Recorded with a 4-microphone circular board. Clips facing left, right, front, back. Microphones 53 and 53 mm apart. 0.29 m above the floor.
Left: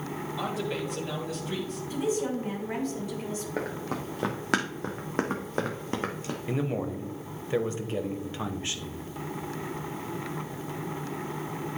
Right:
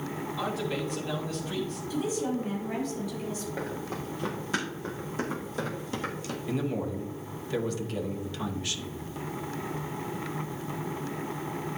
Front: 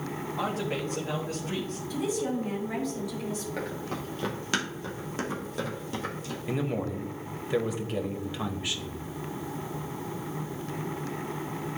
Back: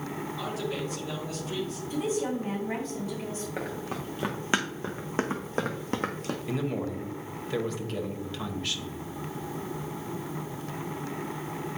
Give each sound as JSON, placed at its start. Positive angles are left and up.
{"t": 0.4, "sound": "a man speaking", "azimuth_deg": 15, "distance_m": 1.6}
{"t": 1.9, "sound": "a woman speaking", "azimuth_deg": 140, "distance_m": 3.0}
{"t": 3.6, "sound": "running footsteps", "azimuth_deg": 100, "distance_m": 2.0}
{"t": 6.5, "sound": "a man speaking", "azimuth_deg": 65, "distance_m": 1.0}